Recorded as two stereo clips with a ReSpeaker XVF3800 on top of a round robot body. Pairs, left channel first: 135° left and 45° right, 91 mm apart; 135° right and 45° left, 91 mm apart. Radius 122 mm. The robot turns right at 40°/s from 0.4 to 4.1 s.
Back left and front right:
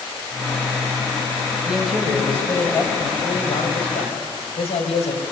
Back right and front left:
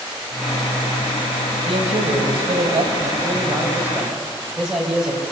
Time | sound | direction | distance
1.7 | a man speaking | 35° left | 4 m